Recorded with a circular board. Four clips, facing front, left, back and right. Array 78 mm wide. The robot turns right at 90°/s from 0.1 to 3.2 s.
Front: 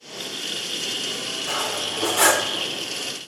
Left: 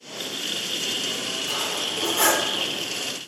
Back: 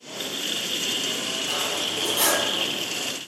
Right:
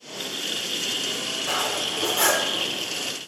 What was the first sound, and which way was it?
Cutlery clinking, 65° right.